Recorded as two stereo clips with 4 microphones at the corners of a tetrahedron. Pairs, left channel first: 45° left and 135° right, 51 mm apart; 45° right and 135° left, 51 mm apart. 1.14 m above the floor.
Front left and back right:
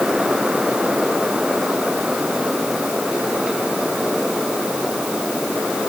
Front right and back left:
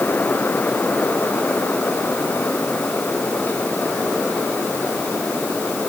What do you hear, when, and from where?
Only background noise.